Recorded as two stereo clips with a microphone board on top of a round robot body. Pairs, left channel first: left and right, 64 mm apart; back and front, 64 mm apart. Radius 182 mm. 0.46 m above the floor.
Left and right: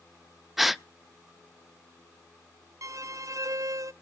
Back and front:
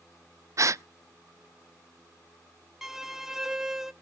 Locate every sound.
0.6 s a gasp: 5° right, 0.6 m
2.8 s a violin: 80° right, 0.6 m